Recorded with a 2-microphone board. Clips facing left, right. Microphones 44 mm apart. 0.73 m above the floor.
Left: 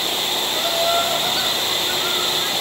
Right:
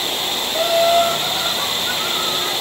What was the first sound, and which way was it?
Laughter, 40° right (ahead or behind).